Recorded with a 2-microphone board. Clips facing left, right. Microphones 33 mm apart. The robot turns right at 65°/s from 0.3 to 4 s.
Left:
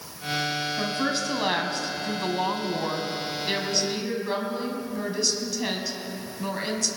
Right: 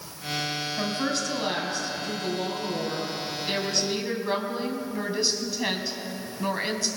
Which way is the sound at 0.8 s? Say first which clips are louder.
Right 1 dB; 15° right.